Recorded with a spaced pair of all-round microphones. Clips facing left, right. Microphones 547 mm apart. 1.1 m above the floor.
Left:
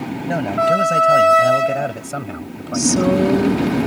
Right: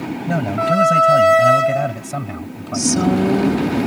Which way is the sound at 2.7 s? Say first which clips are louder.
Left 1 dB; 10° right (ahead or behind).